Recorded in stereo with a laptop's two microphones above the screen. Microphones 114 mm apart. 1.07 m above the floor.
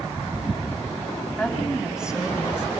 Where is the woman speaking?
5° right (ahead or behind), 7 m; by 2.7 s 10° right (ahead or behind), 8 m.